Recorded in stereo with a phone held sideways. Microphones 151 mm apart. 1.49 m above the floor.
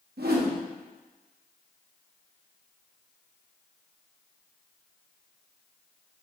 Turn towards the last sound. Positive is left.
turn(degrees=-80)